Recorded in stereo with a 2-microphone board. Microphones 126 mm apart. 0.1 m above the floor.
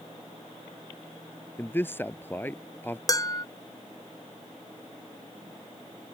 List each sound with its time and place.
1.6 s a man speaking: 15° left (ahead or behind)
3.1 s dishes clattering: 30° left (ahead or behind)